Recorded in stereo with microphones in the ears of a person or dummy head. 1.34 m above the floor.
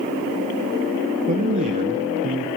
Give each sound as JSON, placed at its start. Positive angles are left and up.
{"t": 1.3, "sound": "a man speaking", "side_deg": -40, "distance_m": 0.7}